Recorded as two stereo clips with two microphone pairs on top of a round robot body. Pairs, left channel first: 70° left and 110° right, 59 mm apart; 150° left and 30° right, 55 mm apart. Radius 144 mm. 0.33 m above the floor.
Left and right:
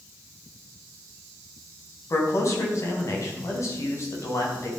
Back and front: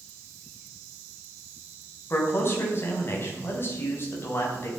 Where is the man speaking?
105° left, 4 m.